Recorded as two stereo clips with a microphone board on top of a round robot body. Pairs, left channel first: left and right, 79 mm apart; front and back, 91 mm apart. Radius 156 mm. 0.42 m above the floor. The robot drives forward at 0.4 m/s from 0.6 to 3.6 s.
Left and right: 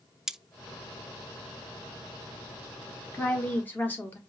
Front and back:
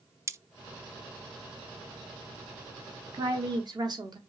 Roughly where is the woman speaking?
Behind left.